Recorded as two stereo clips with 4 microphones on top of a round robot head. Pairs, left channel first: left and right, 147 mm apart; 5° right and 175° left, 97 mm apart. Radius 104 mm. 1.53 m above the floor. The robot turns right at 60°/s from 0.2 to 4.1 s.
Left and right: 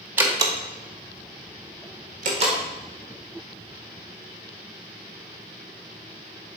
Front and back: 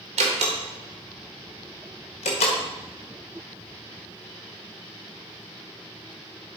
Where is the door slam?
165° right, 1.2 m; by 2.6 s 25° right, 1.2 m.